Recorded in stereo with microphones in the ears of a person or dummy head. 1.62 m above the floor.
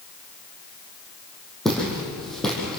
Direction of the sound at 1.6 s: 5° left (ahead or behind).